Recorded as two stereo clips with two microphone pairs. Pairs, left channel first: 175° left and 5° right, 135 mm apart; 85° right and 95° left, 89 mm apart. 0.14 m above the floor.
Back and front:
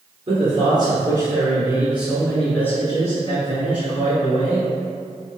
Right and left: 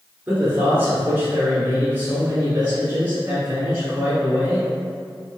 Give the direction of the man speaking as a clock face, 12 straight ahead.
11 o'clock.